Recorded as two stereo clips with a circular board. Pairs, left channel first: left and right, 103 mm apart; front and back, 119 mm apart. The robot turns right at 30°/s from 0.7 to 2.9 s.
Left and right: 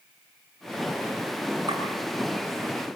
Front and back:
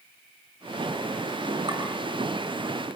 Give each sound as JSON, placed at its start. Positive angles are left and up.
{"t": 1.7, "sound": "a clink", "azimuth_deg": -140, "distance_m": 7.5}